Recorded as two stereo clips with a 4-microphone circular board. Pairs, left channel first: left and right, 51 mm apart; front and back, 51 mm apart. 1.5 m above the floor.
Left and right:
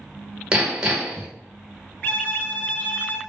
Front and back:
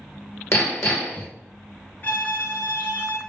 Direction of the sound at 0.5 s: 25° right.